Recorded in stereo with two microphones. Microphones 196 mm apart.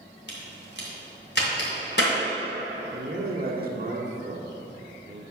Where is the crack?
65° left (ahead or behind), 2.5 m.